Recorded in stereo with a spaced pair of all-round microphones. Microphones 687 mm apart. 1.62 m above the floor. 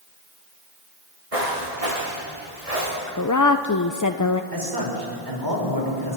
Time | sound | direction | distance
1.3 | footsteps | 55° right (ahead or behind) | 6 m
3.1 | a woman speaking | 30° left (ahead or behind) | 0.6 m
4.5 | a man speaking | 30° right (ahead or behind) | 5.5 m